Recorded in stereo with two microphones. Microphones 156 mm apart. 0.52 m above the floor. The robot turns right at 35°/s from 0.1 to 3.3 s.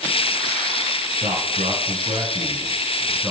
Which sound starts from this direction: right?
A man speaking, at 1.2 s.